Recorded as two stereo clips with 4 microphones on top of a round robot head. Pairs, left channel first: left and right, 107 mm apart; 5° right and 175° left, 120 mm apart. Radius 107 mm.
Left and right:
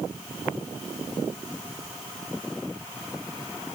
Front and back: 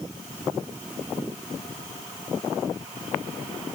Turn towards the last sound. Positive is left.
No sound to turn to.